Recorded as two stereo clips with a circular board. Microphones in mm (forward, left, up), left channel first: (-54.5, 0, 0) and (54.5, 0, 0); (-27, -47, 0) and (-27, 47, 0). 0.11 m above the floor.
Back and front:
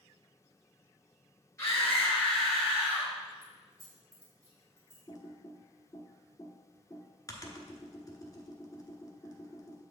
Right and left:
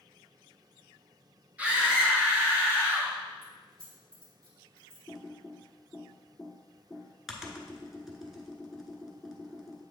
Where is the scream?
150° left, 2.0 m; by 3.1 s 55° left, 2 m.